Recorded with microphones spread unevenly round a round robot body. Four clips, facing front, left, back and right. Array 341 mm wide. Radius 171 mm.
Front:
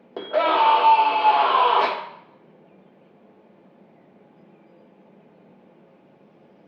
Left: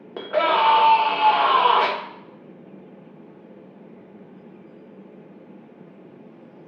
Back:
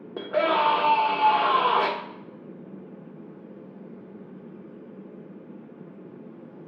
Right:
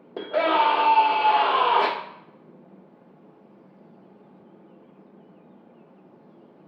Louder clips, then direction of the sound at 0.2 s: Left 1 dB, front 4 dB; 170° left.